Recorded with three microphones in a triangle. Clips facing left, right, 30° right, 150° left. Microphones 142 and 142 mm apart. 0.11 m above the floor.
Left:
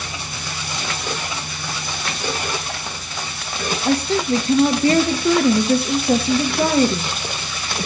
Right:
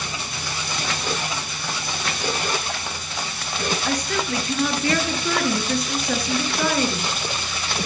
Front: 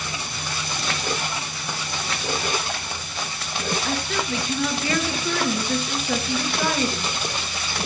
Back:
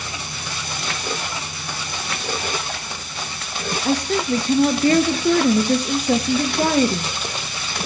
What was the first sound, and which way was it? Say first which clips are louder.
A woman speaking: left 11 dB, back 6 dB; 130° left.